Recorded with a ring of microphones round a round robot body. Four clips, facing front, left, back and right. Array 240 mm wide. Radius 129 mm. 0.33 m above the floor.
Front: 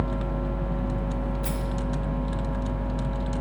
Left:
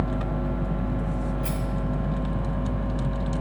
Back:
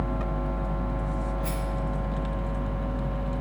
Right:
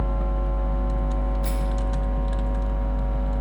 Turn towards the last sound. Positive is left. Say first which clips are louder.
# left 1 dB, front 1 dB
turn(degrees=20)